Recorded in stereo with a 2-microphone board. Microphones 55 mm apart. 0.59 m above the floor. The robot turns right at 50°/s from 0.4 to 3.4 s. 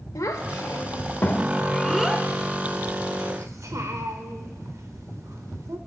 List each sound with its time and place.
0.1 s a child speaking: 75° left (ahead or behind), 0.9 m; by 5.8 s 70° right (ahead or behind), 0.9 m